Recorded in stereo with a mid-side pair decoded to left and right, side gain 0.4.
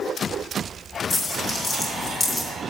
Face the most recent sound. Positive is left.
turn(degrees=45)